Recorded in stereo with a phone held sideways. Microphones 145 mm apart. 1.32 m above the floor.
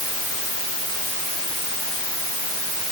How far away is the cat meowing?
No cat meowing in this recording.